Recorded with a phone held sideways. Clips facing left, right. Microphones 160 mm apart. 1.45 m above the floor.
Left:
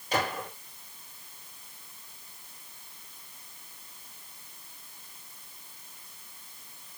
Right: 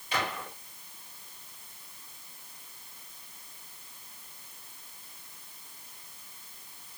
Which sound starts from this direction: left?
A gunshot, at 0.1 s.